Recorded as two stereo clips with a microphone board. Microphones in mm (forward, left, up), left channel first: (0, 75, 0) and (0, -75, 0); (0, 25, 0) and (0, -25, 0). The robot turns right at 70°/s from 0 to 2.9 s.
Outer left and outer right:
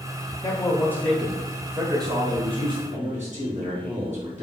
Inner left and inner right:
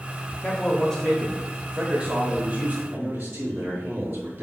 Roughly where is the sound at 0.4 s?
Behind left.